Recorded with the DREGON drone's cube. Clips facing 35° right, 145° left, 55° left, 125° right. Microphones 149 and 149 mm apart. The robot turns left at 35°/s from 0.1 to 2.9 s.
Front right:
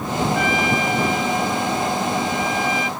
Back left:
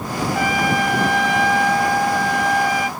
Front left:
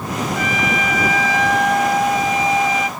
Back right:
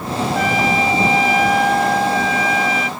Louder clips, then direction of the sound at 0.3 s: Back left 1 dB, back right 5 dB; 165° right.